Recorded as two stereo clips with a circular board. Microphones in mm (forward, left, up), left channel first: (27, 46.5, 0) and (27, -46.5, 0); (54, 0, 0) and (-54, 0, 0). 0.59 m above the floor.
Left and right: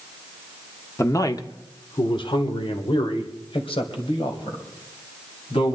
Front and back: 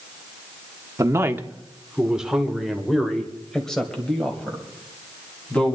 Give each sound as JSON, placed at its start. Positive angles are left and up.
{"t": 1.0, "sound": "a man speaking", "azimuth_deg": 135, "distance_m": 1.0}